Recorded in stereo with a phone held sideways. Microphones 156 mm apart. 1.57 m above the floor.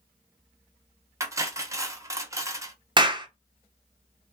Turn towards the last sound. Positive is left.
turn(degrees=-30)  # may be behind; listen again after turning